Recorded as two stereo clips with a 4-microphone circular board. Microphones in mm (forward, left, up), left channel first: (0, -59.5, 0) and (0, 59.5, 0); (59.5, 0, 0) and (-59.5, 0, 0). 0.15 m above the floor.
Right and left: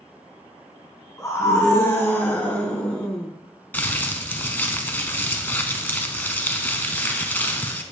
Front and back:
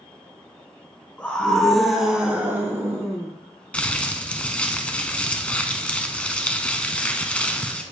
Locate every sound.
1.2 s a scream: 65° right, 1.4 m; by 3.3 s 170° right, 1.4 m
3.7 s crumpling: 55° right, 0.6 m